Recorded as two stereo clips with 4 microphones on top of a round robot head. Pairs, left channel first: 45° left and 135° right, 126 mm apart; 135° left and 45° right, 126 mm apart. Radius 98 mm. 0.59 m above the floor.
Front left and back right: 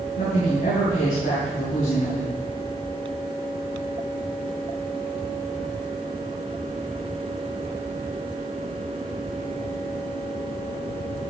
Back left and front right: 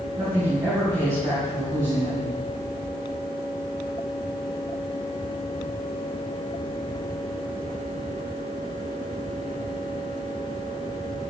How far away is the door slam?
I don't hear a door slam.